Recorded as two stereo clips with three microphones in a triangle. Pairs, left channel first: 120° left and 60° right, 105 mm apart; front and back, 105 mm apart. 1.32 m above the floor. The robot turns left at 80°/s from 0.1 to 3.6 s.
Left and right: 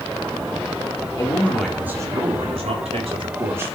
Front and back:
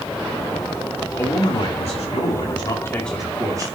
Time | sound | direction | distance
1.2 | a man speaking | 70° left | 3.5 m